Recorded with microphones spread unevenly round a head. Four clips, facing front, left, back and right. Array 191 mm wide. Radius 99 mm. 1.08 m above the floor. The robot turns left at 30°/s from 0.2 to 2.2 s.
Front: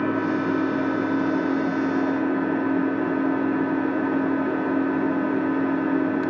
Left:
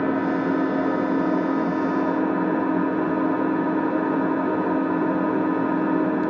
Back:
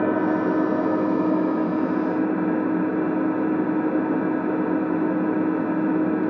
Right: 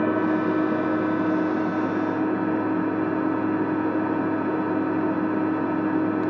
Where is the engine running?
170° left, 1.1 m; by 6.3 s 110° left, 1.1 m.